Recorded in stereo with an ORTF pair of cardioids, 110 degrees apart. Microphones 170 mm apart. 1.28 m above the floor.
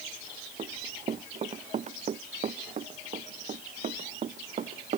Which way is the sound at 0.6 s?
40° right.